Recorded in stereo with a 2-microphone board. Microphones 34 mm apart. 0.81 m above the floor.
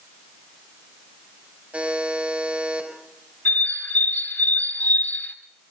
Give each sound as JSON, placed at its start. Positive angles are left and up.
{"t": 1.7, "sound": "a buzzer", "side_deg": -40, "distance_m": 4.5}
{"t": 3.5, "sound": "a bird", "side_deg": 75, "distance_m": 2.0}